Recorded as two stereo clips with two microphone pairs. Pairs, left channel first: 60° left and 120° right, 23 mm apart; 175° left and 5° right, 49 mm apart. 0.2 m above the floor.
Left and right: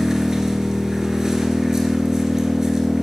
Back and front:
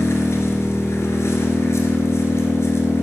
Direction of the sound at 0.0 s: 175° left.